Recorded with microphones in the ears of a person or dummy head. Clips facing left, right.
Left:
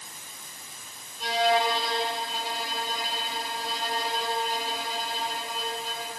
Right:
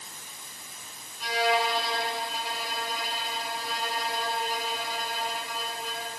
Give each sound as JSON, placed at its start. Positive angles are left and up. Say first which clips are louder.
{"t": 1.2, "sound": "a violin", "louder": "left 2 dB", "side_deg": 25, "distance_m": 6.5}